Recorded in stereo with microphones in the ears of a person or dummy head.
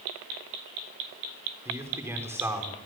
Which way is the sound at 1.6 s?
10° right (ahead or behind).